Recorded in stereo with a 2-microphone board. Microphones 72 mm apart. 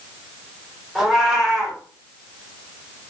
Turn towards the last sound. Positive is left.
turn(degrees=-5)  # may be behind; listen again after turning